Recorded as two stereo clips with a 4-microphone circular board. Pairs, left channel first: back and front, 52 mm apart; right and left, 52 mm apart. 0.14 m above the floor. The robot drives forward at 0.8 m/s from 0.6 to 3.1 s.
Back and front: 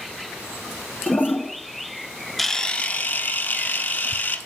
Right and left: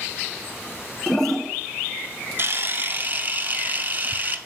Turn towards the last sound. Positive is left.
turn(degrees=145)